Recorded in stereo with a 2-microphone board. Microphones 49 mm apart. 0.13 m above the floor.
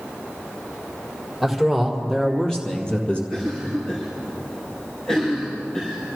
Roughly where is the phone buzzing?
No phone buzzing in this recording.